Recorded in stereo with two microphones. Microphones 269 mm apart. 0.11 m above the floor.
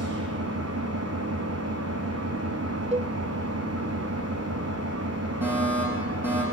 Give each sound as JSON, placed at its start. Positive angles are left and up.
{"t": 0.0, "sound": "an engine running", "side_deg": -60, "distance_m": 3.5}
{"t": 2.9, "sound": "a cowbell", "side_deg": -25, "distance_m": 0.6}
{"t": 5.4, "sound": "a fire alarm", "side_deg": -5, "distance_m": 8.5}